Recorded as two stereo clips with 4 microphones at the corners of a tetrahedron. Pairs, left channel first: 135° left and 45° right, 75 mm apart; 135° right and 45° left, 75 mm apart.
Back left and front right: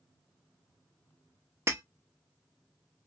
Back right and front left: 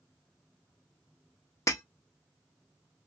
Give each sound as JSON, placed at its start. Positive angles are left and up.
{"t": 1.7, "sound": "breaking glass", "azimuth_deg": -95, "distance_m": 0.7}